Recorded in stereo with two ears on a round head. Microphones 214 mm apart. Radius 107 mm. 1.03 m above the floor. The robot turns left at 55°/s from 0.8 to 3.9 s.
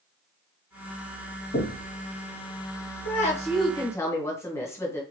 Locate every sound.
1.5 s knocking: 40° left (ahead or behind), 0.7 m; by 1.9 s 60° left (ahead or behind), 0.7 m
3.0 s a woman speaking: 65° left, 0.8 m; by 5.0 s 20° left, 0.8 m